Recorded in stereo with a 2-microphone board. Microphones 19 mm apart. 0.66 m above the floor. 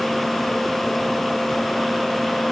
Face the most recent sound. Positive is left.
No sound to turn to.